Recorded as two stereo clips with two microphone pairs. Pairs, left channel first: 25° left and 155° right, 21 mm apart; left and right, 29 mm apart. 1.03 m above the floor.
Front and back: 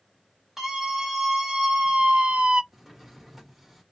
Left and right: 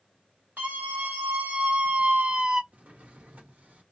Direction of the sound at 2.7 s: 70° right.